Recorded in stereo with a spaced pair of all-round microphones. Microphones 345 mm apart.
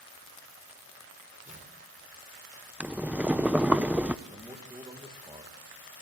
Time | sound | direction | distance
1.4 | tearing paper | 20° right (ahead or behind) | 3 m
2.8 | boiling | 5° right (ahead or behind) | 0.6 m
4.2 | a man speaking | 10° right (ahead or behind) | 2.5 m